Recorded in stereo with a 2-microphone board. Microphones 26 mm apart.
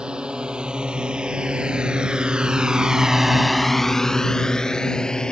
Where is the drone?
40° right (ahead or behind); by 5.3 s 35° left (ahead or behind).